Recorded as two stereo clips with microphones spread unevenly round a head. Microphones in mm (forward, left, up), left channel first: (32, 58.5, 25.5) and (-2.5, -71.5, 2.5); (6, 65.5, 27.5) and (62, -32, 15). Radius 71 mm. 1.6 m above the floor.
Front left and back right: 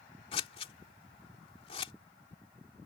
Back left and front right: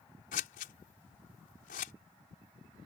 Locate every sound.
0.3 s scissors: 130° left